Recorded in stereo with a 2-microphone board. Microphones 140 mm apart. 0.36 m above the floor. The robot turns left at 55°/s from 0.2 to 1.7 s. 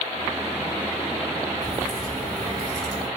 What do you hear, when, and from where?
1.6 s a crack: centre (ahead or behind), 2 m; by 3.1 s 5° left (ahead or behind), 2 m